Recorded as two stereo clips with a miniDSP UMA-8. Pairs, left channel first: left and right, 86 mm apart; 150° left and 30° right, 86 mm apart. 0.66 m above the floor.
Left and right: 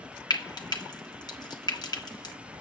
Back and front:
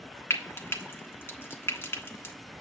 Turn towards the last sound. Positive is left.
turn(degrees=95)